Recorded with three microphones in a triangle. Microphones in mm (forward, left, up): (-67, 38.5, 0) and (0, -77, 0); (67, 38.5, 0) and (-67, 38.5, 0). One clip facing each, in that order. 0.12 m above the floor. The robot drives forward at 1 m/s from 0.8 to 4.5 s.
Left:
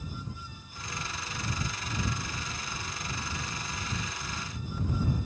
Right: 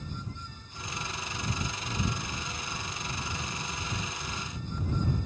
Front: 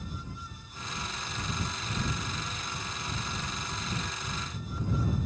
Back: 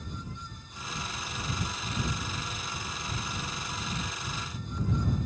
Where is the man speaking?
I don't hear a man speaking.